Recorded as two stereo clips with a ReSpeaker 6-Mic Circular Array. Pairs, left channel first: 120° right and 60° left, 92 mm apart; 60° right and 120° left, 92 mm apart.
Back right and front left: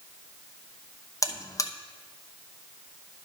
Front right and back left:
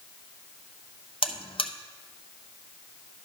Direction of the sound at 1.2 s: 65° right.